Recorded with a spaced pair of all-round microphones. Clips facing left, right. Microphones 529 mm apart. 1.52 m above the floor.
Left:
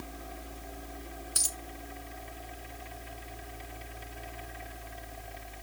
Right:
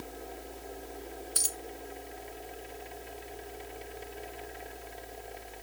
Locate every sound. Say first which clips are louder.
0.0 s a fan: right 2 dB; 25° left (ahead or behind)
1.4 s a dropped coin: right 3 dB; 30° left (ahead or behind)